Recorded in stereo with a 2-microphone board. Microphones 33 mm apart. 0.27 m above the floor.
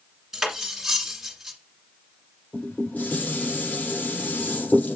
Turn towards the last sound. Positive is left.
turn(degrees=70)  # may be behind; listen again after turning